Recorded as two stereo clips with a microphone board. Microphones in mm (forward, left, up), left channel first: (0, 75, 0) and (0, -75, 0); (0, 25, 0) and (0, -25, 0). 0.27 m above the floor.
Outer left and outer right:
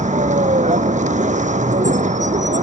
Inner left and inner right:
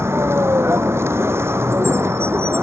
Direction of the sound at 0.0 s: 55° right (ahead or behind).